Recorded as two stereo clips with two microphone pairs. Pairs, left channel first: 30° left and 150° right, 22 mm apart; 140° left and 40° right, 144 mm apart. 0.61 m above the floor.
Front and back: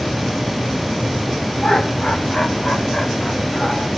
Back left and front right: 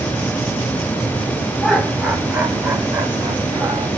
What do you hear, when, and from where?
1.6 s laughter: 50° left, 1.9 m; by 3.9 s 15° left, 3.5 m